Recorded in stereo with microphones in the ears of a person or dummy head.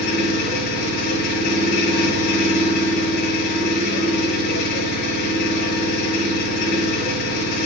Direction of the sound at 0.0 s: 60° left (ahead or behind).